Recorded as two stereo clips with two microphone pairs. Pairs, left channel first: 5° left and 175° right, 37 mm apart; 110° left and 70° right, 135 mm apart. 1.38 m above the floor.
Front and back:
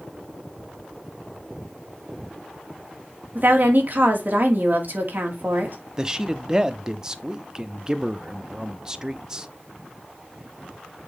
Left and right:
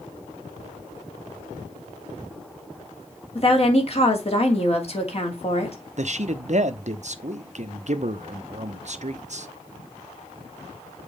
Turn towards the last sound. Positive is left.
turn(degrees=-100)